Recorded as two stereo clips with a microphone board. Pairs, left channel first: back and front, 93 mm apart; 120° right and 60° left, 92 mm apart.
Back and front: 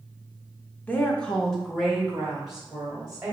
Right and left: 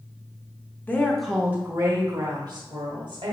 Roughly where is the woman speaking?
Behind right.